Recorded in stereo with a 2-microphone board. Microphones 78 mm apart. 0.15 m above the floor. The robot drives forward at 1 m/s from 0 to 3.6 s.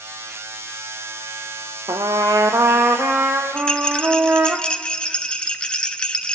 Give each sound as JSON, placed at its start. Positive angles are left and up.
{"t": 1.9, "sound": "a trumpet", "side_deg": -75, "distance_m": 0.9}
{"t": 3.6, "sound": "a rattle", "side_deg": 10, "distance_m": 0.8}